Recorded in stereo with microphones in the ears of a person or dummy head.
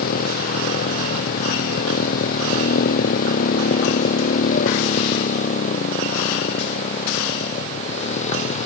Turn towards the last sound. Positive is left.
turn(degrees=40)  # may be behind; listen again after turning